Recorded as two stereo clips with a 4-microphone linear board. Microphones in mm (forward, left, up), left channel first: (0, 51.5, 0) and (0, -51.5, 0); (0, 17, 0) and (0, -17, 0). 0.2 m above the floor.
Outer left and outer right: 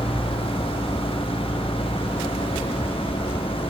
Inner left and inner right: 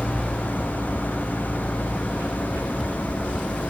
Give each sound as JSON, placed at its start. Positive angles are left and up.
{"t": 0.0, "sound": "an engine running", "side_deg": 60}